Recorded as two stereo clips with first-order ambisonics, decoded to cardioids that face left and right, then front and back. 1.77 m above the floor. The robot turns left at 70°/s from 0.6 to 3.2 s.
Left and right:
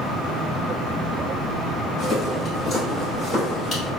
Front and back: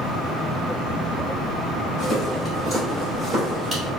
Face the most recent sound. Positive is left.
turn(degrees=145)